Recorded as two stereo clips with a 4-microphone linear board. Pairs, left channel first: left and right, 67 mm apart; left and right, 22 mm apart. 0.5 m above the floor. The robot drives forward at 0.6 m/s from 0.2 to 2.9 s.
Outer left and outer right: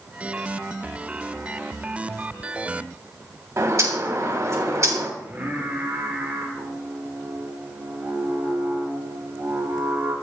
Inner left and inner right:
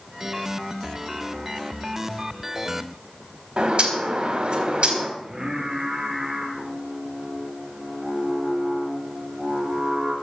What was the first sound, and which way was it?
A bird, 50° right (ahead or behind).